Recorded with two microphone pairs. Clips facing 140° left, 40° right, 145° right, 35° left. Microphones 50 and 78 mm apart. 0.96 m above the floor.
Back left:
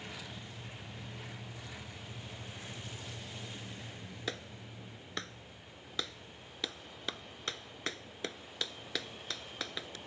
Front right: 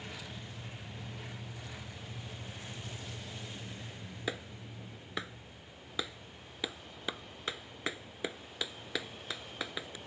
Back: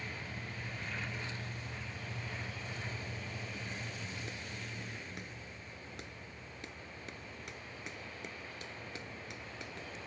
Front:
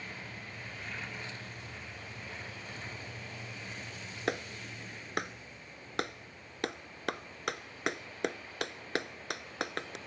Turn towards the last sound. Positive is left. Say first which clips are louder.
# front right 3 dB, front 9 dB
turn(degrees=35)